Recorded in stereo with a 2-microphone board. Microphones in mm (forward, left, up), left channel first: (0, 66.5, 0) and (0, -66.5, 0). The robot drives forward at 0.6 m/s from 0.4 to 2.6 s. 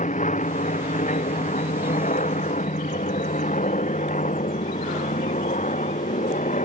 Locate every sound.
0.0 s an aircraft: 70° left (ahead or behind)